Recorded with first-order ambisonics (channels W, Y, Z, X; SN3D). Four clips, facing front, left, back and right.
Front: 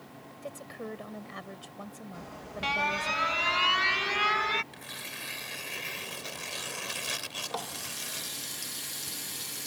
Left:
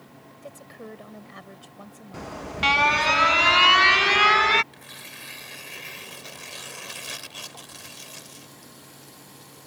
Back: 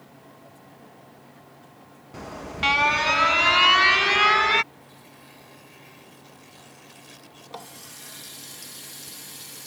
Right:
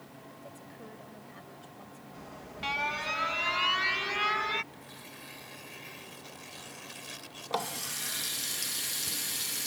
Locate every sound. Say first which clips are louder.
0.4 s a woman speaking: left 9 dB, front 8 dB; 30° left
2.1 s an alarm: left 13 dB, back 9 dB; 130° left
4.7 s tearing paper: left 6 dB, front 8 dB; 30° left
7.5 s a running tap: right 8 dB, front 4 dB; 75° right